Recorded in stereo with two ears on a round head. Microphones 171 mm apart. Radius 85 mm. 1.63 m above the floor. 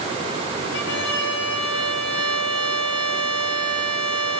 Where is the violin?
65° left (ahead or behind), 3 m.